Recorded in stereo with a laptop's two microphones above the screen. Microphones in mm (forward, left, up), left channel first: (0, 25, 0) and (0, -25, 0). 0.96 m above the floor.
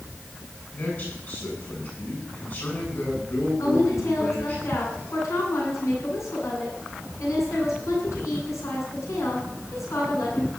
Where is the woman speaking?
70° left (ahead or behind), 9.5 m.